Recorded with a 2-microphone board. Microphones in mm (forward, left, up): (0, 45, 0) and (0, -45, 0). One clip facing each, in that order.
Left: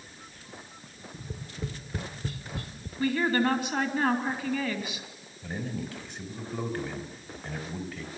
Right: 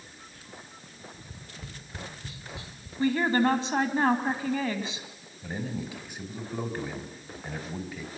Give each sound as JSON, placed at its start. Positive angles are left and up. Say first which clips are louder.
{"t": 1.1, "sound": "tapping", "louder": "left 6 dB", "side_deg": 60, "distance_m": 1.2}
{"t": 3.0, "sound": "a woman speaking", "louder": "right 2 dB", "side_deg": -30, "distance_m": 3.0}
{"t": 5.4, "sound": "a man speaking", "louder": "right 1 dB", "side_deg": -10, "distance_m": 3.0}